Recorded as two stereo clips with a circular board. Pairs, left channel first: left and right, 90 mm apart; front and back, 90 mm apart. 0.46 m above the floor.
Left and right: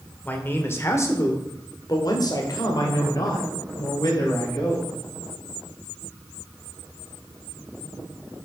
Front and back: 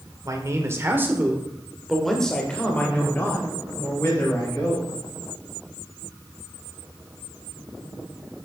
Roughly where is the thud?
I don't hear a thud.